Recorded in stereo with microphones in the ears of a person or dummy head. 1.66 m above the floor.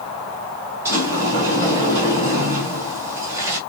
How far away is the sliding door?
About 3 m.